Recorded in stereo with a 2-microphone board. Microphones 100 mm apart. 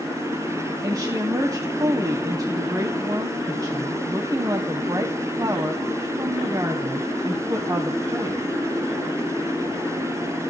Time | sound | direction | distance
0.8 | a woman speaking | 35° right (ahead or behind) | 1.6 m